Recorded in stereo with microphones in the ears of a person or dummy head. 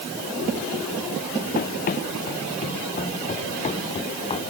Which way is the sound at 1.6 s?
50° left (ahead or behind).